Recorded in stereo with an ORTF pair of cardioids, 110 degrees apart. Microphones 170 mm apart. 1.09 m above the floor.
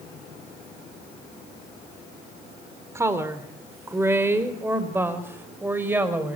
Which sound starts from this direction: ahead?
A woman speaking, at 3.0 s.